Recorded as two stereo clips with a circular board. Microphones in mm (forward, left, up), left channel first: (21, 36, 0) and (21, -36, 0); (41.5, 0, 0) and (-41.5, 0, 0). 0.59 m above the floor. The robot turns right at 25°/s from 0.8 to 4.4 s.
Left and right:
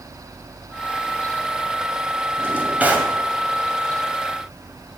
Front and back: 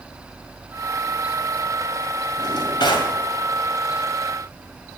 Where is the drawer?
35° right, 2 m; by 3.1 s 15° right, 2 m.